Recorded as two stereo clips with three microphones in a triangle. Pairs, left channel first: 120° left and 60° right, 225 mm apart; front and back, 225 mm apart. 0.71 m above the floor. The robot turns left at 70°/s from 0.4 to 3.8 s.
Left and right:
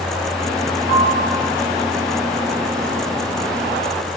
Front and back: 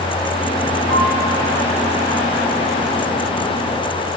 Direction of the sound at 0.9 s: 130° left.